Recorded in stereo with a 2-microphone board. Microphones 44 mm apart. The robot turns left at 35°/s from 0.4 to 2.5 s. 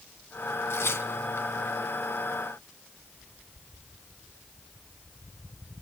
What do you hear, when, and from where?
0.7 s tearing paper: 70° left (ahead or behind), 2.5 m; by 1.5 s 75° left (ahead or behind), 2.5 m